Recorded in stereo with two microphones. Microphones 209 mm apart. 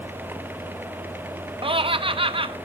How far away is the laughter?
About 0.6 m.